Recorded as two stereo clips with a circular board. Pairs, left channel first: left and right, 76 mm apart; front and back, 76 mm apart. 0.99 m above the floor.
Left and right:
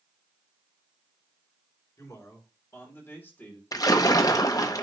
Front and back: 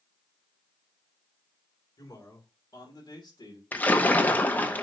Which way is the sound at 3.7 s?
65° left.